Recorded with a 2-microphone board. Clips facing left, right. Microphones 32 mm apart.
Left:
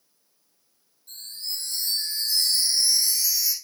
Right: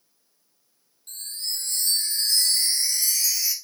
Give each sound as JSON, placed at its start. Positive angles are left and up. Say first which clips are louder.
{"t": 1.1, "sound": "a chime", "louder": "right 2 dB", "side_deg": -75, "distance_m": 1.5}